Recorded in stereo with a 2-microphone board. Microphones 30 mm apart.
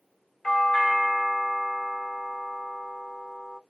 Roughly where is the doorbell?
Centre.